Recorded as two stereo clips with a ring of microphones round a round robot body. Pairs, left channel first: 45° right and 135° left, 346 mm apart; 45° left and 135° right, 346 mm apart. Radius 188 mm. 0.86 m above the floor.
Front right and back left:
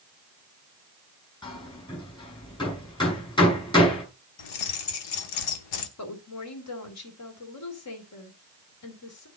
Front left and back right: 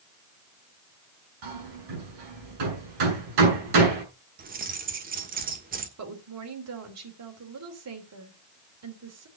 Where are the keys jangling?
70° right, 1.4 m.